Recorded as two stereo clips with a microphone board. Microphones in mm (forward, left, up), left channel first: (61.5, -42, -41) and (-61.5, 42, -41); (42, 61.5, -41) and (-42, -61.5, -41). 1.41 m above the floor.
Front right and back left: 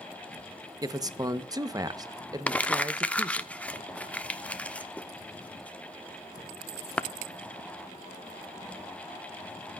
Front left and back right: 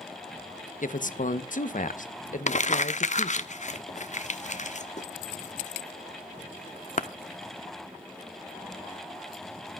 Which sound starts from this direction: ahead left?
Crumpling, at 2.5 s.